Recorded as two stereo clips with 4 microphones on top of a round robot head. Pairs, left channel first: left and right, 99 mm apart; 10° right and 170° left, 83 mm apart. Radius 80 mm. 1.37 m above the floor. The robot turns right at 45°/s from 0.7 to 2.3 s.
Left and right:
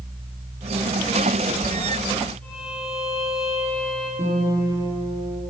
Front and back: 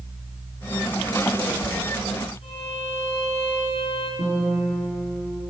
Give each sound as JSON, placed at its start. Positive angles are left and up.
{"t": 2.4, "sound": "a violin", "azimuth_deg": 10, "distance_m": 5.0}
{"t": 4.2, "sound": "a guitar", "azimuth_deg": -45, "distance_m": 4.5}